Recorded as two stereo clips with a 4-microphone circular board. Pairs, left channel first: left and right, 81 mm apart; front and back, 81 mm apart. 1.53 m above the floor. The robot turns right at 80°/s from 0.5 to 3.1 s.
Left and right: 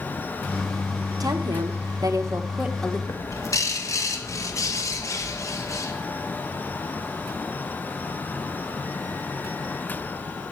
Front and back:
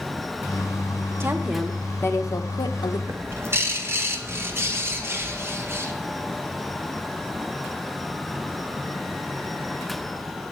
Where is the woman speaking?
125° right, 1.4 m; by 3.0 s 15° left, 1.4 m.